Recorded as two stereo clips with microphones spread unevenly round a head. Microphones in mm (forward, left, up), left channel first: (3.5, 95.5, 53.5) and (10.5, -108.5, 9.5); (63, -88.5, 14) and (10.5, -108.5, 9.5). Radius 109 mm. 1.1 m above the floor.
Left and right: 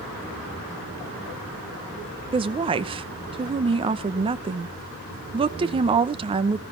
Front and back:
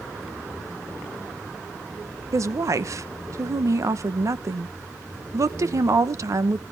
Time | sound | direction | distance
2.3 | a woman speaking | 145° right | 0.9 m